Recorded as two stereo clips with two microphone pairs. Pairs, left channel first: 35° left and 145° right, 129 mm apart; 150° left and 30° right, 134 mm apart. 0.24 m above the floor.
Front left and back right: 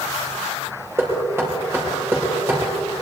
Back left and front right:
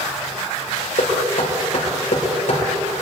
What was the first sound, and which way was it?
Knocking, 145° left.